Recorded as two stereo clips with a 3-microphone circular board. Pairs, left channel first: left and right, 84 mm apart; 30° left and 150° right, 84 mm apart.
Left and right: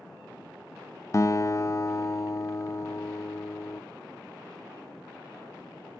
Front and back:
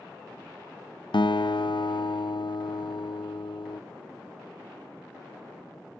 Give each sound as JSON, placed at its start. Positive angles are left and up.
{"t": 1.1, "sound": "a guitar", "azimuth_deg": 40, "distance_m": 0.5}